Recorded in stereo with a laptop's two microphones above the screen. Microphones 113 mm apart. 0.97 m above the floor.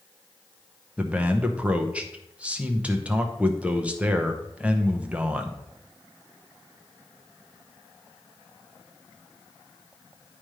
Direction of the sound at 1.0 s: 10° right (ahead or behind).